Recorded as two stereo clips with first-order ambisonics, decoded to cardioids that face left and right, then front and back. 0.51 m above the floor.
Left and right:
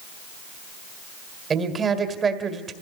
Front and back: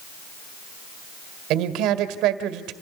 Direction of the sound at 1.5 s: 155° right.